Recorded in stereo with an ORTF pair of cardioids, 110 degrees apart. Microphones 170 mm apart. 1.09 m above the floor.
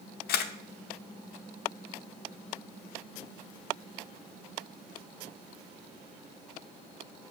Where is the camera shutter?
65° left, 0.9 m.